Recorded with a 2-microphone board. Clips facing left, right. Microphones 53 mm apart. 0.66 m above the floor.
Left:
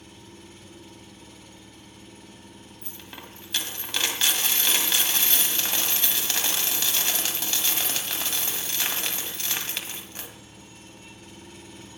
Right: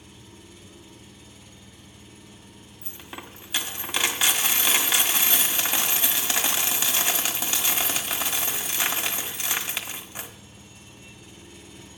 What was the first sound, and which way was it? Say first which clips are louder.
An engine running: left 2 dB; 50° left (ahead or behind).